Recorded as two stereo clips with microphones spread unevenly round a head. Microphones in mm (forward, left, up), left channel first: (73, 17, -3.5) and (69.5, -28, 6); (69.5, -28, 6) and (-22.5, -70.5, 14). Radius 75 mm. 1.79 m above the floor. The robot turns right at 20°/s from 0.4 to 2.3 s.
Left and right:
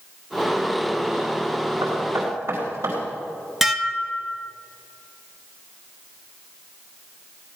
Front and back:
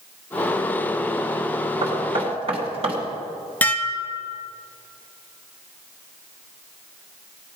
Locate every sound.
1.8 s knocking: 150° right, 3 m; by 3.0 s 140° right, 3 m
3.6 s dishes clattering: 40° right, 0.8 m